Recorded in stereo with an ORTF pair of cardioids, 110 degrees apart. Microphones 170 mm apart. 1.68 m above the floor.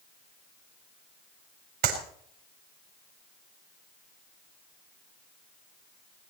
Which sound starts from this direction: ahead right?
A clap, at 1.8 s.